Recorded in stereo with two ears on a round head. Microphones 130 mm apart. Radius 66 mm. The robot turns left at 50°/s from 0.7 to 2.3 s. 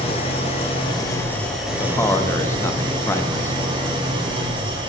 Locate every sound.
0.0 s an engine running: 45° left, 1.2 m; by 4.9 s 35° right, 1.2 m
1.8 s a man speaking: 15° left (ahead or behind), 0.5 m; by 4.1 s 20° left (ahead or behind), 0.5 m